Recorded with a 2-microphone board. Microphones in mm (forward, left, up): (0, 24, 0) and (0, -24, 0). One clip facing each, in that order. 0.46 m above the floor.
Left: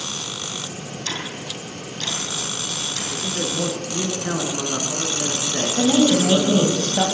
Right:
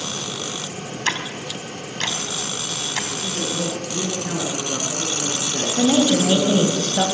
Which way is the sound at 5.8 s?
20° right (ahead or behind).